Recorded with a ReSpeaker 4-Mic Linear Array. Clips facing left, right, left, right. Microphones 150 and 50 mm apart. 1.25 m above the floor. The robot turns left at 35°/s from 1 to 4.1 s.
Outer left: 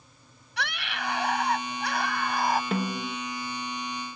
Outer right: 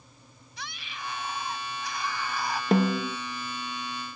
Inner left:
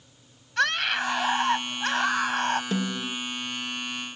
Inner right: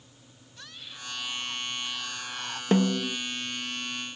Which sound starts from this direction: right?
A snare drum, at 2.7 s.